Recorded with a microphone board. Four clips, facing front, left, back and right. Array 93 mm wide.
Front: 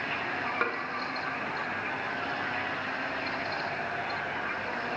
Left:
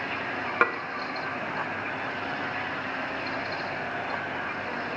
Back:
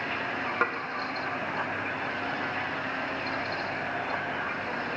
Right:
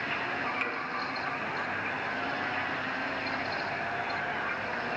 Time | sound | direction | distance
0.6 | dishes clattering | 100° left | 0.7 m